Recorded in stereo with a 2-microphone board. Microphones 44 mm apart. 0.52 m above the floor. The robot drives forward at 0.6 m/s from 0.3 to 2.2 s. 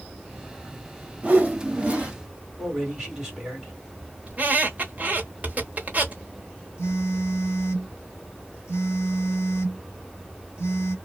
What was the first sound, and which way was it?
A whoosh, 35° right (ahead or behind).